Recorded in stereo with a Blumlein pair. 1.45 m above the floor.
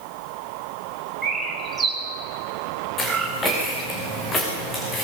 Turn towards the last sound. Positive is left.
turn(degrees=15)